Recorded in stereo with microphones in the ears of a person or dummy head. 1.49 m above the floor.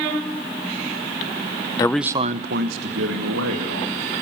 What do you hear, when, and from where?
1.8 s a man speaking: 25° left (ahead or behind), 0.7 m; by 4.1 s 85° right, 3.5 m